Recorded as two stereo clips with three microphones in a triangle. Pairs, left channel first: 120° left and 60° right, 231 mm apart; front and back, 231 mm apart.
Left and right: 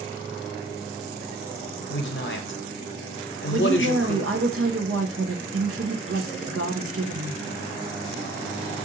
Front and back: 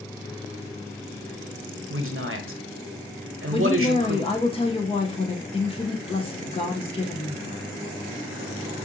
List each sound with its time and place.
1.9 s a man speaking: 155° left, 0.7 m
3.5 s a woman speaking: 60° right, 0.5 m